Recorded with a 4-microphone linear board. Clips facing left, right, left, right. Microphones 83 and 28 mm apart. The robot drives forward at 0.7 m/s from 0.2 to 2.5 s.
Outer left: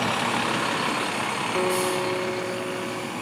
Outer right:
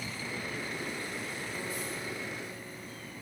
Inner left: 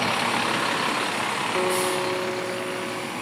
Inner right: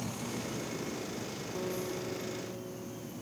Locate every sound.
0.0 s a vehicle: 70° left (ahead or behind); by 3.2 s 75° left (ahead or behind)
1.6 s a guitar: 60° left (ahead or behind); by 3.1 s 65° left (ahead or behind)